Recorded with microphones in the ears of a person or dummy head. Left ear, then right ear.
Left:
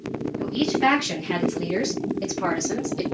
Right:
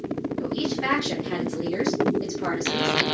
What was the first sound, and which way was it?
A woman speaking, 10° left (ahead or behind).